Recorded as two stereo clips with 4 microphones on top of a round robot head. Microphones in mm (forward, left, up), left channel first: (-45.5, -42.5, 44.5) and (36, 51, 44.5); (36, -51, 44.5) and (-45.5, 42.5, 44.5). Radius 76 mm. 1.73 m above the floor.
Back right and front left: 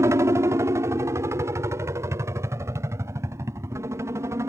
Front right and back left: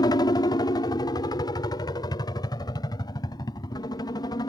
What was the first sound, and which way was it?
A helicopter, 10° right.